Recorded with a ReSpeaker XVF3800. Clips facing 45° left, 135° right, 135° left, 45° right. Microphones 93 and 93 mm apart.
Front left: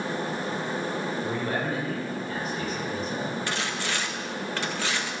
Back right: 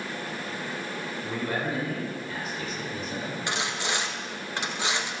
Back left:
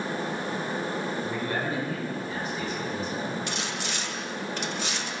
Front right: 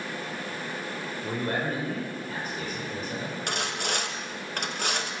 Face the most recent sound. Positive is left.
turn(degrees=-70)